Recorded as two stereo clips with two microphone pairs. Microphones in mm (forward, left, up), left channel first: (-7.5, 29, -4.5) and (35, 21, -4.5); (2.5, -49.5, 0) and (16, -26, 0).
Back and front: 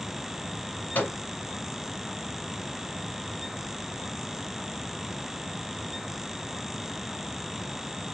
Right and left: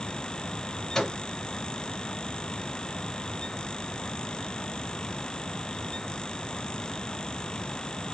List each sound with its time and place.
0.9 s a microwave: 175° left, 1.8 m